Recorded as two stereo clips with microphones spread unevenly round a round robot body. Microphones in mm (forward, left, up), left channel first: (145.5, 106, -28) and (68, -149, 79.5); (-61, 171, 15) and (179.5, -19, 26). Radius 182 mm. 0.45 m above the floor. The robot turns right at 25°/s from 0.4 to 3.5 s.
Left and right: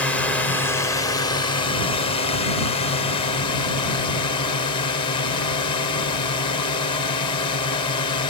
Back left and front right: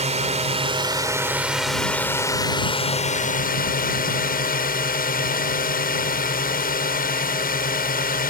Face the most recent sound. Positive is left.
turn(degrees=95)